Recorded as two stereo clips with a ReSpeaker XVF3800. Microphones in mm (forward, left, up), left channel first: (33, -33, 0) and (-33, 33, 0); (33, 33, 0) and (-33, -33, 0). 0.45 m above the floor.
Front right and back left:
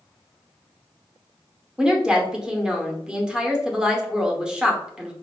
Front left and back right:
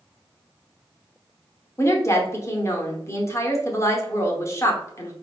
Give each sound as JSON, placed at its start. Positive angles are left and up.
{"t": 1.8, "sound": "a woman speaking", "azimuth_deg": 60, "distance_m": 0.9}